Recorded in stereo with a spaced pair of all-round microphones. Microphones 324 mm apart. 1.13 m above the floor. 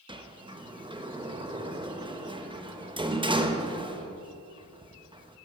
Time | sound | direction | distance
0.1 | a sliding door | 15° right (ahead or behind) | 0.9 m